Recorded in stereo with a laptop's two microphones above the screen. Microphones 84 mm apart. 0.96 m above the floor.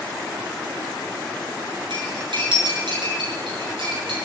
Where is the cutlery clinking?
70° right (ahead or behind), 8 m.